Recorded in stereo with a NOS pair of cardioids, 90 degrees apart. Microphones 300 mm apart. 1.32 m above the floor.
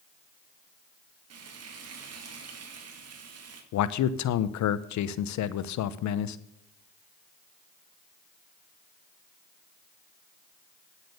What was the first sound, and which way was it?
Frying, 55° right.